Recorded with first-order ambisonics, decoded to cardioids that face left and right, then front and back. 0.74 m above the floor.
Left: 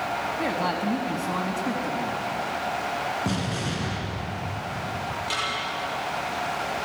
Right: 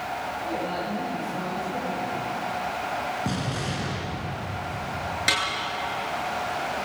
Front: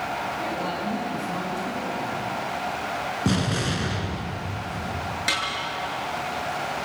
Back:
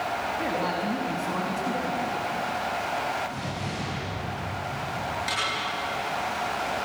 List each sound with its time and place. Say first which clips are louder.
0.4 s a man speaking: left 3 dB, back 1 dB; 105° left, 4.5 m
3.2 s an explosion: left 1 dB, front 6 dB; 5° left, 3.5 m
5.3 s a snare drum: right 5 dB, front 4 dB; 65° right, 8.5 m